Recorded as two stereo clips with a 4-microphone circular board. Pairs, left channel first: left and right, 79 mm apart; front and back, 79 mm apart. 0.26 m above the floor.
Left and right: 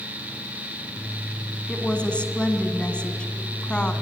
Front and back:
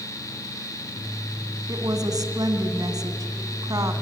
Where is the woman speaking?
165° left, 2 m.